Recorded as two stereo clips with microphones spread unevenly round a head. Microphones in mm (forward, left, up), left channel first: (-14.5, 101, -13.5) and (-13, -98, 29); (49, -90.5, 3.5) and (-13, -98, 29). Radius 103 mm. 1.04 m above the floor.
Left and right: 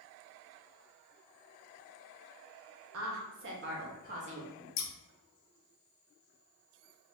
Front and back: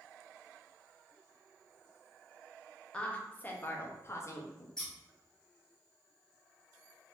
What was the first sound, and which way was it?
A woman speaking, 60° right.